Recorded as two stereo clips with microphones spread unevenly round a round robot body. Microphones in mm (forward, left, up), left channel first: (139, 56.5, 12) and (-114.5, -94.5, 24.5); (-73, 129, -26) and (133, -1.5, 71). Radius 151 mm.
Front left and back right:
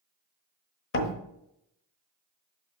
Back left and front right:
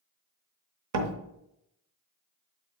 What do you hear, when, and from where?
0.9 s a door slam: 10° right, 1.1 m